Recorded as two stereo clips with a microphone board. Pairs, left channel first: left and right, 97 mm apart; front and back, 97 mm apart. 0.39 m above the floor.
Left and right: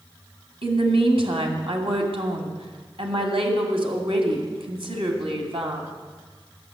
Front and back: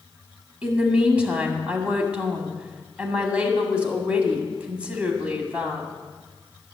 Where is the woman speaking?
105° right, 2 m.